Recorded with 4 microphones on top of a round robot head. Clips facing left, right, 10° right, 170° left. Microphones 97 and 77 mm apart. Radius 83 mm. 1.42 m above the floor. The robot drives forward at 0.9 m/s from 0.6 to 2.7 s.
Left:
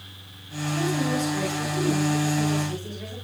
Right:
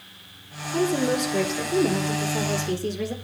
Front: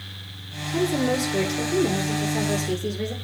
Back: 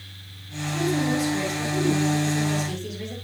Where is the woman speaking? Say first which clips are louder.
Right 3 dB, front 1 dB; 50° right, 4.5 m; by 3.1 s 70° right, 4 m.